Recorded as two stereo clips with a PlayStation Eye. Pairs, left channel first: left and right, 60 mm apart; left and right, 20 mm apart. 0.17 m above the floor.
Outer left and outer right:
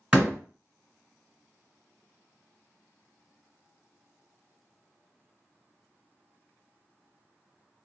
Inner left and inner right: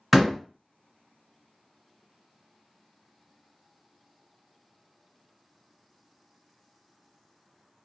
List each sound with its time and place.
0.1 s a door slam: 15° right (ahead or behind), 1.6 m